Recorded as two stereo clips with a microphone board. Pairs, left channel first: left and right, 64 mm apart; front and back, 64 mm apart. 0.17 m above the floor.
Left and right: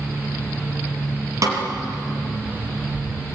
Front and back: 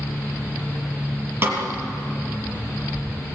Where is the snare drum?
125° right, 4 m.